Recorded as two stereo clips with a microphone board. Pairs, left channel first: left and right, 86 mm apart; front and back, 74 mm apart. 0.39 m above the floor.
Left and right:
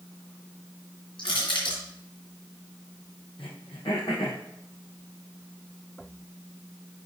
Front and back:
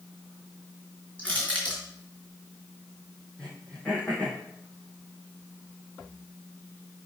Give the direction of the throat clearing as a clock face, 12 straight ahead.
9 o'clock.